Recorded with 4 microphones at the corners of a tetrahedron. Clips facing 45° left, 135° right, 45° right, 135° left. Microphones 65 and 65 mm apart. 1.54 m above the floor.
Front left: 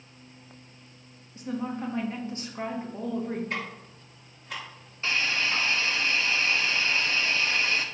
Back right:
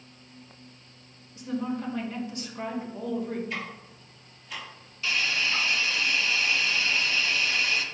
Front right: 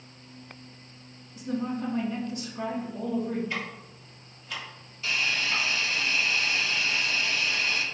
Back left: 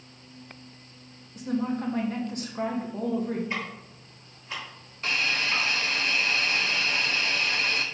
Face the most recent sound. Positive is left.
turn(degrees=100)